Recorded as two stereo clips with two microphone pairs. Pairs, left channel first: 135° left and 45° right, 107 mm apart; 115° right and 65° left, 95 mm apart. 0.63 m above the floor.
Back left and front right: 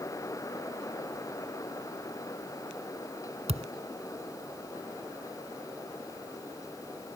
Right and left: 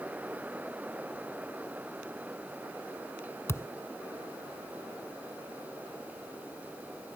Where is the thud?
50° right.